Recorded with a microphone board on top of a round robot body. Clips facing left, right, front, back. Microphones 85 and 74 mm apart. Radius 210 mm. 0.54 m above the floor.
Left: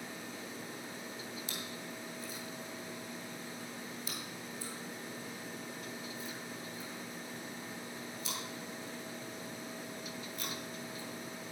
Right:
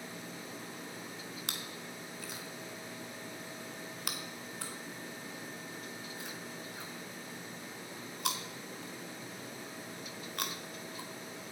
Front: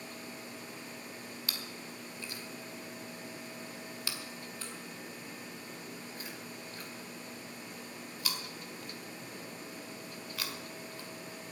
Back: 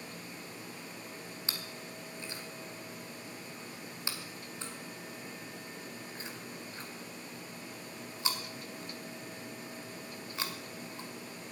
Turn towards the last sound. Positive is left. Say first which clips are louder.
# even, even
turn(degrees=-115)